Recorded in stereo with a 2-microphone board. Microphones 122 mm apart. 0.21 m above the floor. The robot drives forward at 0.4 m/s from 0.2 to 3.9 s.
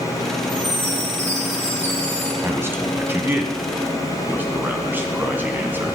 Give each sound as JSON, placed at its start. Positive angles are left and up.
{"t": 0.5, "sound": "a chime", "side_deg": -75, "distance_m": 5.0}
{"t": 2.4, "sound": "a man speaking", "side_deg": -20, "distance_m": 1.5}